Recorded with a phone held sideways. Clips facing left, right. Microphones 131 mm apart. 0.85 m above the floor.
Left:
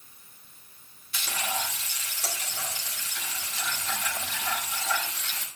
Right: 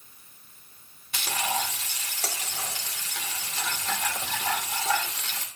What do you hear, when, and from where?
1.1 s frying: 80° right, 2 m